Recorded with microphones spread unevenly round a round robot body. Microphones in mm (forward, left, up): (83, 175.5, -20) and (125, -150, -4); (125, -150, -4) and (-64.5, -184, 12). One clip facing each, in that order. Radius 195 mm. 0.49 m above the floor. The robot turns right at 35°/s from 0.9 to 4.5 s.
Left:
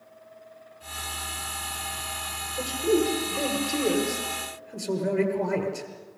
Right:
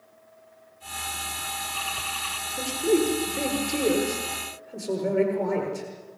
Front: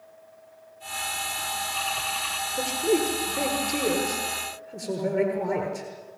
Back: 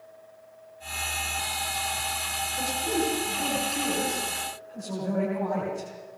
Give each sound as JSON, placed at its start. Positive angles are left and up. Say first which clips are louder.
{"t": 2.6, "sound": "a man speaking", "louder": "right 1 dB, front 5 dB", "azimuth_deg": -30, "distance_m": 7.5}